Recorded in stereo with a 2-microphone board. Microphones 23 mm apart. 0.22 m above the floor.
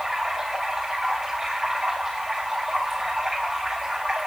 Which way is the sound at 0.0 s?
20° right (ahead or behind).